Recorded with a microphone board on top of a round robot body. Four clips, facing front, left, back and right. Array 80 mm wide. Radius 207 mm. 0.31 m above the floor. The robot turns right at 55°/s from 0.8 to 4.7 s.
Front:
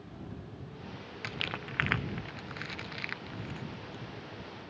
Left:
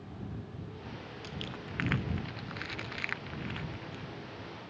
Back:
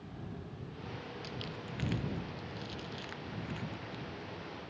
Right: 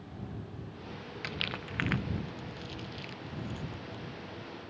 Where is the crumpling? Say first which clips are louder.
Right 5 dB, front 4 dB; 35° right; by 4.0 s 120° left.